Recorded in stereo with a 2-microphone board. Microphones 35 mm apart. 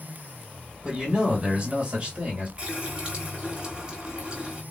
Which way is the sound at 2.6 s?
20° right (ahead or behind).